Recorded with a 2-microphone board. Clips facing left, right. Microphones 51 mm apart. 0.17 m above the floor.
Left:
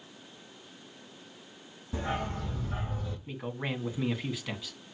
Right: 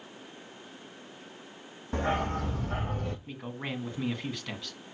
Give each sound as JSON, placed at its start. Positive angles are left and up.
{"t": 1.9, "sound": "a dog barking", "side_deg": -55, "distance_m": 2.5}
{"t": 3.3, "sound": "a man speaking", "side_deg": 5, "distance_m": 1.6}